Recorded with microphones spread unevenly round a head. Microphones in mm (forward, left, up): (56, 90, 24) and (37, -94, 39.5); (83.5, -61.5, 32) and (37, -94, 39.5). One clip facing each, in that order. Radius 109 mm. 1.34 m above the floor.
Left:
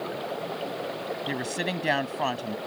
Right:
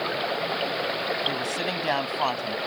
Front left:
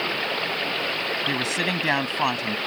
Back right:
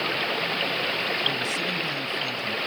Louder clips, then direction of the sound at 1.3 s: Right 1 dB, front left 2 dB; 10° left.